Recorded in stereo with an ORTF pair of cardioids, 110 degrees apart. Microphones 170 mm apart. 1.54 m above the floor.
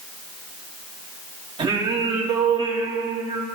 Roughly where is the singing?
Ahead right.